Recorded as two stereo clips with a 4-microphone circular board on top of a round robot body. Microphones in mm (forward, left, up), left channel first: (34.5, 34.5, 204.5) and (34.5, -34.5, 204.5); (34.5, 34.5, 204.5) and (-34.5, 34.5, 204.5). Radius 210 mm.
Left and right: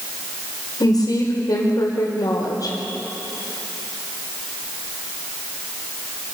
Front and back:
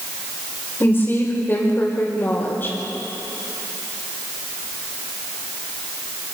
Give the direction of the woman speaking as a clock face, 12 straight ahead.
10 o'clock.